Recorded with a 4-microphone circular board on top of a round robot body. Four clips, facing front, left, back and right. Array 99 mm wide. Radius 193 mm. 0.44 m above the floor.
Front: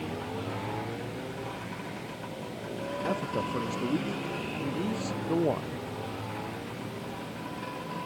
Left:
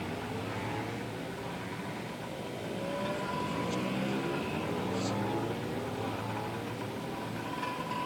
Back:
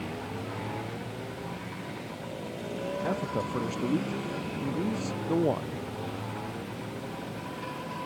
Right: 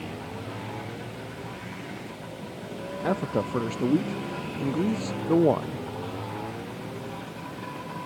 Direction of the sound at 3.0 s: 90° right.